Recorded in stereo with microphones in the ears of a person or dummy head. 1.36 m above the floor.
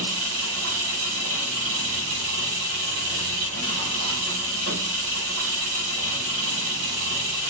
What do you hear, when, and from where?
0.0 s an engine running: 60° right (ahead or behind), 1.2 m